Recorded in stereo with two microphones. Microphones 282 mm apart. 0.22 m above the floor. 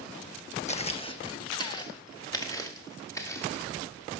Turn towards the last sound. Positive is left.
turn(degrees=10)  # may be behind; listen again after turning